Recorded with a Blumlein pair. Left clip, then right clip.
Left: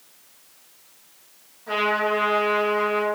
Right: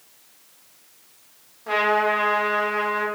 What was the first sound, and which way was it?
A trumpet, 55° right.